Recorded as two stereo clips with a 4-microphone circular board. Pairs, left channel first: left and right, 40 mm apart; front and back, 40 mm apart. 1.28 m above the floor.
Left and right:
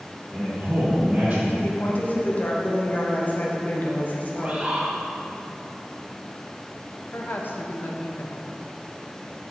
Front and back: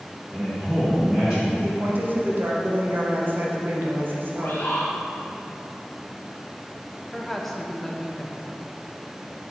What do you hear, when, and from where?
0.3 s a man speaking: 130° right, 1.2 m
1.6 s a woman speaking: 140° left, 0.9 m
4.3 s a bird: 30° right, 1.0 m
7.1 s a woman speaking: 85° left, 0.7 m